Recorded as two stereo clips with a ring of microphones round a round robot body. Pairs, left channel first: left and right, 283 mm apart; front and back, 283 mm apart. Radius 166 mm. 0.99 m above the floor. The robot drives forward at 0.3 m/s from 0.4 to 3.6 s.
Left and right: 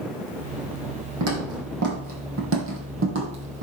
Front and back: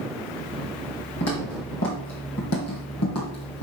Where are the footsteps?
55° right, 3.5 m; by 3.6 s 45° right, 2 m.